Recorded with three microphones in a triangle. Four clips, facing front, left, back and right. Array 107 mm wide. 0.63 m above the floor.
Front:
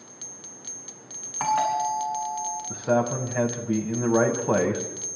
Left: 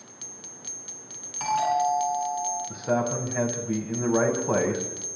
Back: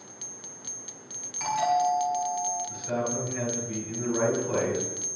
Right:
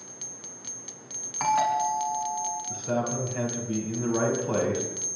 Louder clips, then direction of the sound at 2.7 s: Left 3 dB, front 11 dB; 20° left.